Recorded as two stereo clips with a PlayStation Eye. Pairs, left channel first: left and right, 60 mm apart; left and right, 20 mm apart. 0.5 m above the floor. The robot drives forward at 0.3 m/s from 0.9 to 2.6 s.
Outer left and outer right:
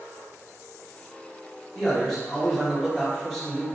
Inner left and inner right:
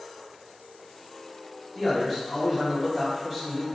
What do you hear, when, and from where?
1.8 s a man speaking: 5° left (ahead or behind), 1.3 m